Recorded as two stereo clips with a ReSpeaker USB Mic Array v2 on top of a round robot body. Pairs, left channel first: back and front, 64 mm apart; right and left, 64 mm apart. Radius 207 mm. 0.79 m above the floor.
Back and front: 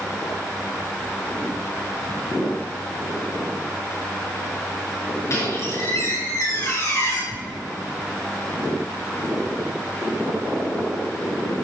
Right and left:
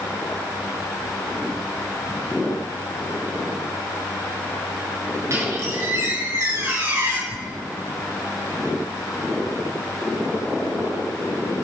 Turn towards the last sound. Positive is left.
turn(degrees=-60)